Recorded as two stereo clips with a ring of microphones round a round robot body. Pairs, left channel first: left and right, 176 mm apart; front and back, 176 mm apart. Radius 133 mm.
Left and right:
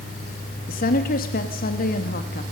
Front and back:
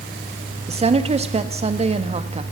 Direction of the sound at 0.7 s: 130° left.